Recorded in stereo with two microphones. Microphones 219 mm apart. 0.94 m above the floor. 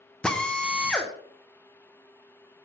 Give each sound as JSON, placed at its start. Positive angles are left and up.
{"t": 0.2, "sound": "a drill", "side_deg": 5, "distance_m": 0.8}